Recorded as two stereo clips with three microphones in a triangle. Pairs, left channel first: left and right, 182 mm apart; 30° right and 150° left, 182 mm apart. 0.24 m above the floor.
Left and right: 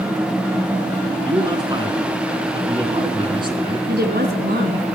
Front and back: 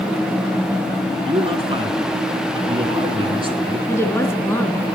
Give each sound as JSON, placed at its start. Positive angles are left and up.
{"t": 1.2, "sound": "a man speaking", "azimuth_deg": -150, "distance_m": 3.0}
{"t": 3.9, "sound": "a woman speaking", "azimuth_deg": -105, "distance_m": 2.0}